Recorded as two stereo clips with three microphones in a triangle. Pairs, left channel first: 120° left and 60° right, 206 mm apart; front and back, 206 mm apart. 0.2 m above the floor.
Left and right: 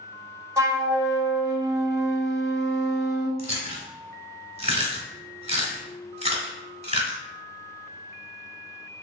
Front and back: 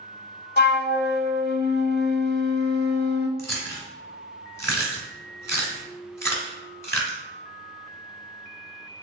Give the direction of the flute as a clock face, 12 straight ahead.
12 o'clock.